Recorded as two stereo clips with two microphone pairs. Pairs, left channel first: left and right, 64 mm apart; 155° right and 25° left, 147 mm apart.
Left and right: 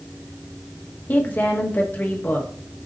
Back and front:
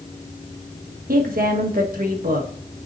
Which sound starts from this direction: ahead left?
A woman speaking, at 1.1 s.